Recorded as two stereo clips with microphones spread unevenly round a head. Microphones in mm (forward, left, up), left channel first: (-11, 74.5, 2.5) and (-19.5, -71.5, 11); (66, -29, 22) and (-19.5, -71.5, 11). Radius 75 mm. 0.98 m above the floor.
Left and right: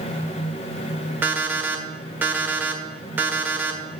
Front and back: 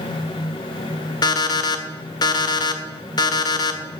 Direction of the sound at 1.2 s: 15° right.